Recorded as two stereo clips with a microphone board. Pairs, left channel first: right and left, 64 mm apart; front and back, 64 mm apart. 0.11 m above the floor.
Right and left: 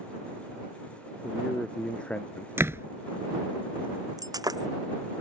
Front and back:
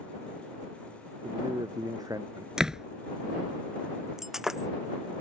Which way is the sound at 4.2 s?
95° left.